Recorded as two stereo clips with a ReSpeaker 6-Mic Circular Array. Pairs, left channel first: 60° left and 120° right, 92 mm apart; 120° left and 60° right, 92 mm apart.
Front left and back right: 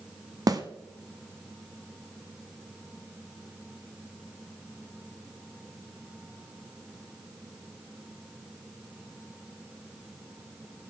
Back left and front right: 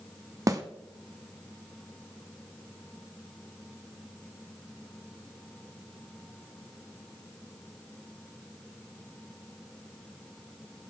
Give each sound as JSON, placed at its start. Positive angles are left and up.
{"t": 0.5, "sound": "a snare drum", "azimuth_deg": -95, "distance_m": 1.2}